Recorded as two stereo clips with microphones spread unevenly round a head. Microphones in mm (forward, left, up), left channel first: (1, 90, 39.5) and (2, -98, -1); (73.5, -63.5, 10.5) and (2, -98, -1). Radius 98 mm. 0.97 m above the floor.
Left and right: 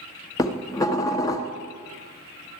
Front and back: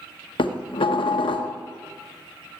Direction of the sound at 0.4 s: 15° left.